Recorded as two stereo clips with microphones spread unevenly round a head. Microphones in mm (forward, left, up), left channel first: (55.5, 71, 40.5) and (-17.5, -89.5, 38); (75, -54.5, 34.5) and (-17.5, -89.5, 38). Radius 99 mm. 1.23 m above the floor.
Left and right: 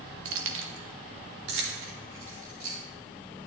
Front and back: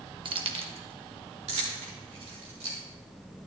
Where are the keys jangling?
120° right, 0.9 m; by 2.8 s 160° right, 3.5 m.